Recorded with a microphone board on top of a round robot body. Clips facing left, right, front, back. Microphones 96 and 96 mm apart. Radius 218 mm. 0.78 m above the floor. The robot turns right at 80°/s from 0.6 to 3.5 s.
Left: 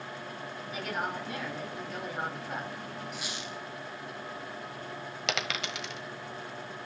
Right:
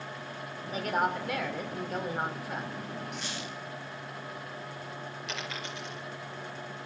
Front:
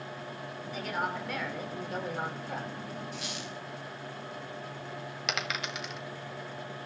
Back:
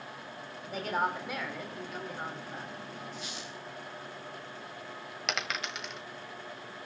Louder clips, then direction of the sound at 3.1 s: Right 1 dB, front 3 dB; straight ahead.